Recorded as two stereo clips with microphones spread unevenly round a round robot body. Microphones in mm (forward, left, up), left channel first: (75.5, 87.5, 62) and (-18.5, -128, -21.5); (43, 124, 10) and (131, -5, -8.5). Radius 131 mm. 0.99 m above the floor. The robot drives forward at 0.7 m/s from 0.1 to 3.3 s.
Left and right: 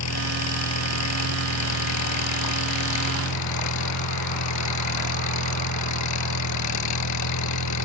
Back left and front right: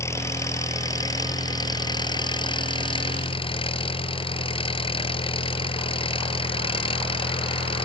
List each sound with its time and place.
0.0 s an engine running: 55° left; by 7.9 s 70° left